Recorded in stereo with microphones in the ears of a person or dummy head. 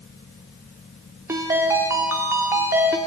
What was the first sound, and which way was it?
A ringtone, 20° right (ahead or behind).